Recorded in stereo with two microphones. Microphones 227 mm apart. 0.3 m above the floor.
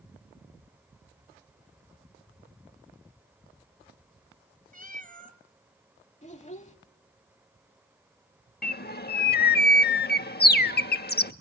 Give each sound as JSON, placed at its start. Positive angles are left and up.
{"t": 4.7, "sound": "a cat meowing", "side_deg": -40, "distance_m": 1.3}
{"t": 6.2, "sound": "a child speaking", "side_deg": 30, "distance_m": 0.9}
{"t": 8.6, "sound": "a bird", "side_deg": 45, "distance_m": 0.5}